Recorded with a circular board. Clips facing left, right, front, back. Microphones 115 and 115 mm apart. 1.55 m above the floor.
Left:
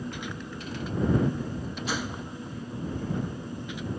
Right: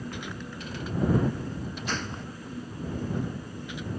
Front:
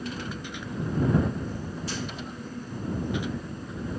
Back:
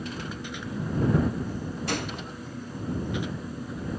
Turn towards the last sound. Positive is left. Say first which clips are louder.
# left 2 dB, back 5 dB
turn(degrees=170)